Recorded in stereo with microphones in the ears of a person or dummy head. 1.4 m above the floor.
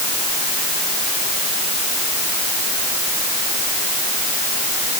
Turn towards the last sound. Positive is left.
No sound to turn to.